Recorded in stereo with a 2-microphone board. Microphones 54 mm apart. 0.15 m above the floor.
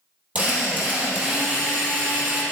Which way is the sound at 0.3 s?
30° right (ahead or behind).